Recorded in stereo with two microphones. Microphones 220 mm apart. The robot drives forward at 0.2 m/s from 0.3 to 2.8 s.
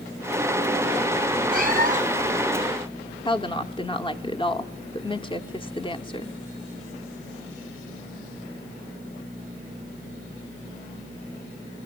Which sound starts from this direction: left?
A woman speaking, at 3.2 s.